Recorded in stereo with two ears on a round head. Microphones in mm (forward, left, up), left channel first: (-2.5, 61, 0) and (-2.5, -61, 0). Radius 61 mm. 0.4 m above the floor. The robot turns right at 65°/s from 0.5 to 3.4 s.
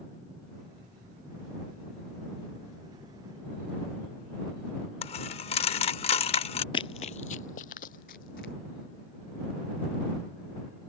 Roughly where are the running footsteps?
Left.